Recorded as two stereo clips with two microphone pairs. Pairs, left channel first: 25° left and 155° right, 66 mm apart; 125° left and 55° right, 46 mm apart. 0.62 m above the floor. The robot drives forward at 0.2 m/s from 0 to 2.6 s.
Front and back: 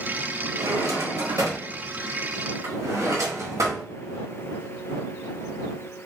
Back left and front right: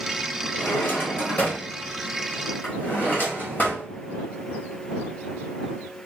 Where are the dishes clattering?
No dishes clattering in this recording.